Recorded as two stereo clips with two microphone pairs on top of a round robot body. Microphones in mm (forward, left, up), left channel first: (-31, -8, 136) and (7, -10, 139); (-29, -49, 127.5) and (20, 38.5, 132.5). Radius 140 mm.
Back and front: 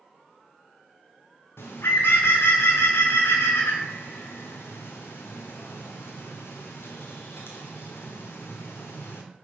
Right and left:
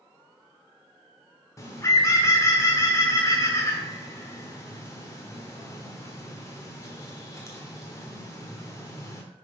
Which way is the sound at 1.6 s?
175° left.